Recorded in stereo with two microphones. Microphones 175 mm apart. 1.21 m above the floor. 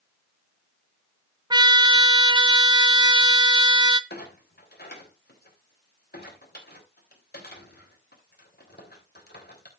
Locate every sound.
1.5 s a trumpet: 25° right (ahead or behind), 0.7 m
4.1 s a clunk: 70° left (ahead or behind), 3 m